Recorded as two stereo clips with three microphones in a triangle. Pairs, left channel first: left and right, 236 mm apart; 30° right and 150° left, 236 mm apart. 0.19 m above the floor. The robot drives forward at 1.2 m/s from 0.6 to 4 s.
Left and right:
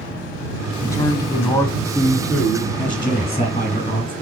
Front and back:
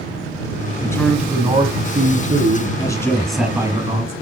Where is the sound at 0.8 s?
25° left, 1.1 m; by 2.7 s 175° left, 2.0 m.